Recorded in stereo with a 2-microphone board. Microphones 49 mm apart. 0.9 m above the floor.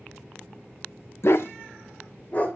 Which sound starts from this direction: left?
A dog barking, at 1.2 s.